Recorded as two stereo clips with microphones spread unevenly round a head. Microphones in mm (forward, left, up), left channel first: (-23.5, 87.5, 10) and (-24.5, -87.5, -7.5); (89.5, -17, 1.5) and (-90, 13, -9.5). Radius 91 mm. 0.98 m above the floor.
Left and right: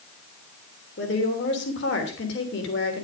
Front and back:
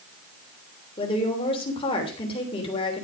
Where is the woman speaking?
55° left, 3 m.